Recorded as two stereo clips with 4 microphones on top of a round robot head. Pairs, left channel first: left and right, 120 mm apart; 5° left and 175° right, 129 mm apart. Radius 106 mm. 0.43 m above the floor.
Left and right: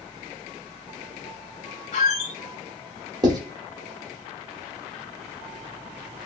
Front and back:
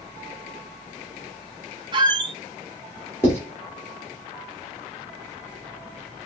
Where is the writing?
55° right, 1.5 m.